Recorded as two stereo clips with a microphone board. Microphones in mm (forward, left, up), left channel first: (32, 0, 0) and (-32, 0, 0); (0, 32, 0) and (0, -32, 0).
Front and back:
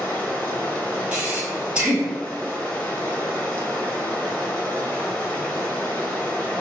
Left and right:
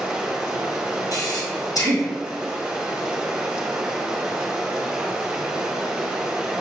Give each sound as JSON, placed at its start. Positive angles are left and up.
{"t": 0.0, "sound": "running water", "azimuth_deg": -40, "distance_m": 1.2}
{"t": 1.1, "sound": "breathing", "azimuth_deg": 100, "distance_m": 1.6}